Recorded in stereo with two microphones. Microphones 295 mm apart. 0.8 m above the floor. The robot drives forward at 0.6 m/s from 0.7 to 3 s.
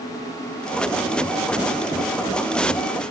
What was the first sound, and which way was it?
Only background noise.